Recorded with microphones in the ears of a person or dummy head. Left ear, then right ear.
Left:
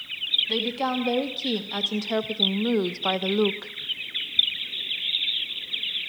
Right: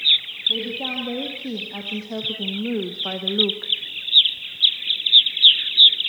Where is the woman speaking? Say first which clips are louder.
Right 1 dB; 70° left (ahead or behind), 2.5 m; by 3.7 s 20° left (ahead or behind), 0.8 m.